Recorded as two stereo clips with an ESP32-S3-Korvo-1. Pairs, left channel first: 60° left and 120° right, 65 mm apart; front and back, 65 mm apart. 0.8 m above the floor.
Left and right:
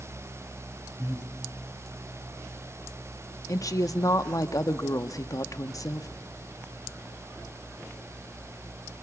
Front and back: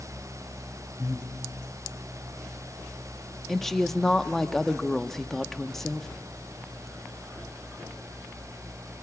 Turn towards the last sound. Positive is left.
turn(degrees=85)